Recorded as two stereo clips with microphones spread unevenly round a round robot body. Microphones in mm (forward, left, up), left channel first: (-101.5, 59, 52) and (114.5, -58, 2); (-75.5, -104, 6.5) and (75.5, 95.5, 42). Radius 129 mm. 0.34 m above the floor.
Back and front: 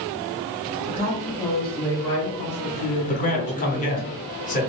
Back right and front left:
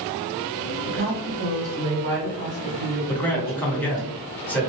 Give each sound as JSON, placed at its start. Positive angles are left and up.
{"t": 0.9, "sound": "a woman speaking", "azimuth_deg": 25, "distance_m": 1.3}
{"t": 3.1, "sound": "a man speaking", "azimuth_deg": -175, "distance_m": 1.0}